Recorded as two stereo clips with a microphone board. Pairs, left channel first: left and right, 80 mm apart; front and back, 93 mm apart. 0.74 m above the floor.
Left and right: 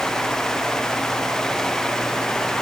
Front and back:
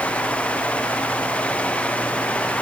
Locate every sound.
Only background noise.